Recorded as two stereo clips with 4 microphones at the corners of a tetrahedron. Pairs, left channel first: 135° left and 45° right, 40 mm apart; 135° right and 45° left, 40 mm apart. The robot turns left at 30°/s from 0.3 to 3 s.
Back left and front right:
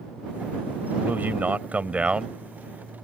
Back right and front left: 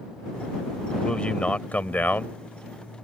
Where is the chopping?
No chopping in this recording.